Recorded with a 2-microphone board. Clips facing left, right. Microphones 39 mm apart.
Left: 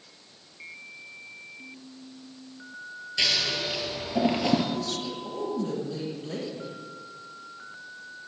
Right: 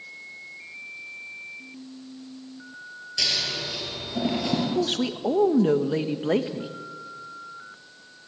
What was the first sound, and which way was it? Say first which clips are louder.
Scissors: left 2 dB; 25° left (ahead or behind).